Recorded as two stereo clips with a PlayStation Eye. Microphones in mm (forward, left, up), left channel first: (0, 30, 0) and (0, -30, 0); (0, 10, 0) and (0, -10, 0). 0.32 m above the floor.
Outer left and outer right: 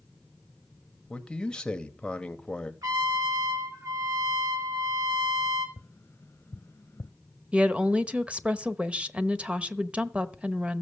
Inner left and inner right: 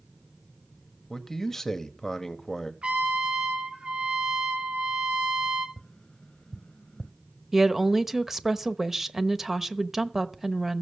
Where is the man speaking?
15° left (ahead or behind), 1.5 m.